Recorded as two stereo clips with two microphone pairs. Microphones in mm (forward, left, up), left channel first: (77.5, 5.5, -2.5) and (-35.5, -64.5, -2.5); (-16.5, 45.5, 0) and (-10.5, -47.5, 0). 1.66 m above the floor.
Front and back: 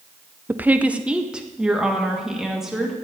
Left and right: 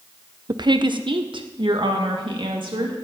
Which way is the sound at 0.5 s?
75° right.